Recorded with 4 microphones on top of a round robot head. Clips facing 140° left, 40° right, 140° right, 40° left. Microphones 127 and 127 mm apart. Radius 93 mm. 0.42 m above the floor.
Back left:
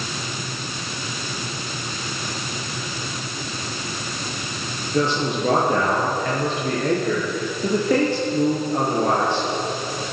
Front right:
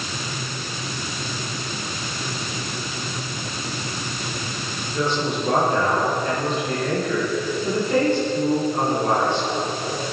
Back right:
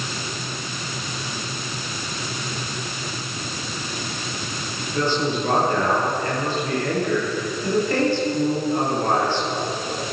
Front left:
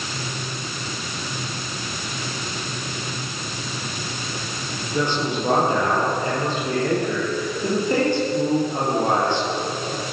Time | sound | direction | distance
4.9 | a man speaking | 115° left | 10 m